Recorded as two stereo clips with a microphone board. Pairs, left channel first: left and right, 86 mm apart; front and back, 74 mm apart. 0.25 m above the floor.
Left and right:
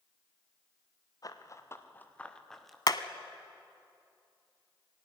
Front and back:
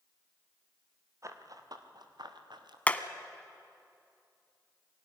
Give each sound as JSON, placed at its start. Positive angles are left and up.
{"t": 1.2, "sound": "running footsteps", "azimuth_deg": 135, "distance_m": 2.5}
{"t": 2.9, "sound": "hammering", "azimuth_deg": 65, "distance_m": 1.0}